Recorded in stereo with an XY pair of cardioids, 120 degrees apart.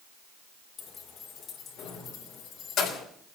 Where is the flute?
No flute in this recording.